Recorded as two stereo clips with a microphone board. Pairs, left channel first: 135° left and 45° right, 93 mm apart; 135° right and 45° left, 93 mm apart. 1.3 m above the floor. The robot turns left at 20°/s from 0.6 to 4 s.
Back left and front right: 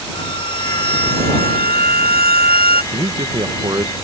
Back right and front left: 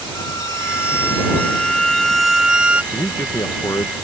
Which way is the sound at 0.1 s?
165° left.